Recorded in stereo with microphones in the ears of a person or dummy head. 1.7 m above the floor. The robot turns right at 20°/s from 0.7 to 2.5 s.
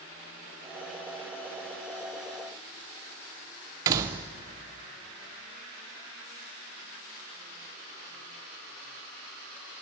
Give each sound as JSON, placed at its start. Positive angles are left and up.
{"t": 3.9, "sound": "a door slam", "side_deg": -25, "distance_m": 0.6}